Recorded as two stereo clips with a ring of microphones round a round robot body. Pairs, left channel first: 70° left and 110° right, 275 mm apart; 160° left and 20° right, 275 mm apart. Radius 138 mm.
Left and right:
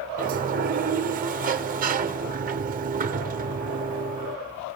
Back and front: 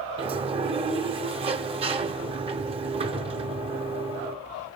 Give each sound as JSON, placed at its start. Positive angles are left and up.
{"t": 0.2, "sound": "a sliding door", "azimuth_deg": -80, "distance_m": 0.7}